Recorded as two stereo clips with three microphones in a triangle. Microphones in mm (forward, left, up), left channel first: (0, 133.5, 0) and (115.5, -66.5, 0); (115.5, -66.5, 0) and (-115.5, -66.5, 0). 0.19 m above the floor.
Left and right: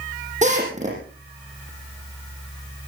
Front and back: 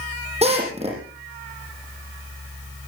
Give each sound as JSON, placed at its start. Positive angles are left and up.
{"t": 0.4, "sound": "a drill", "azimuth_deg": -115, "distance_m": 7.5}